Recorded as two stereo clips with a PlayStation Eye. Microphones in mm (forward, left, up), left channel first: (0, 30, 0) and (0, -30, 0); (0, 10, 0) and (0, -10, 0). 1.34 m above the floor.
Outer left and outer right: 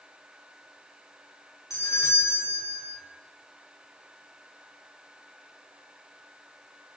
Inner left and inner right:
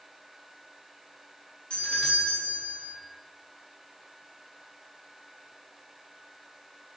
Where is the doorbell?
65° left (ahead or behind), 5.5 m.